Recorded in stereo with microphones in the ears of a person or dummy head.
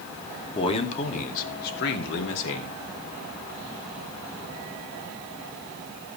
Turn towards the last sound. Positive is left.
turn(degrees=75)  # may be behind; listen again after turning